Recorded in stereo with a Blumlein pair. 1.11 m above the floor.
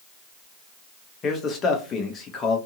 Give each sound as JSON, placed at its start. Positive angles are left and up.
{"t": 1.2, "sound": "a man speaking", "azimuth_deg": 25, "distance_m": 0.9}